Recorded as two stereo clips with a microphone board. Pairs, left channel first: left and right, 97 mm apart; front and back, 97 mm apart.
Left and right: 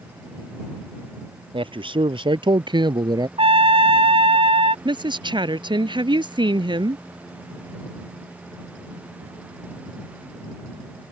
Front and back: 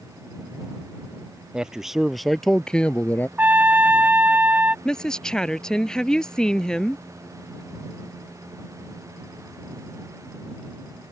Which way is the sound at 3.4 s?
105° right.